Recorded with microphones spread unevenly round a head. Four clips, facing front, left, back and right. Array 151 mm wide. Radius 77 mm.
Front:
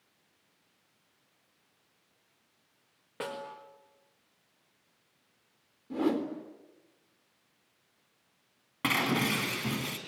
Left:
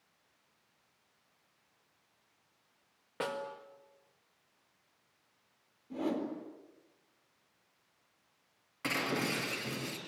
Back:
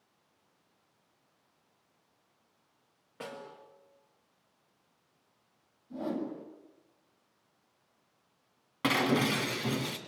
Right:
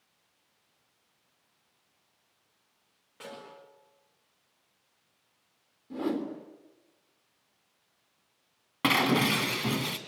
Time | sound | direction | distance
3.2 | a snare drum | 50° left | 5 m
5.9 | a whoosh | 20° right | 3.5 m
8.8 | breaking glass | 90° right | 2.5 m